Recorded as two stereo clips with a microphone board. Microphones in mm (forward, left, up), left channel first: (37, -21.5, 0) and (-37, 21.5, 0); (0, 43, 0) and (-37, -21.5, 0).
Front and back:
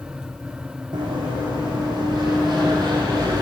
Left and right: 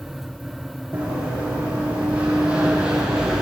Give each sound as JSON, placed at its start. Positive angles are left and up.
{"t": 0.9, "sound": "running footsteps", "azimuth_deg": 175, "distance_m": 2.5}